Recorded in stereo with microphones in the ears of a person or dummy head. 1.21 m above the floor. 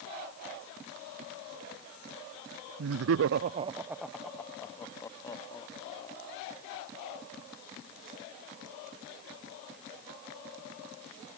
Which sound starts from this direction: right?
Laughter, at 2.8 s.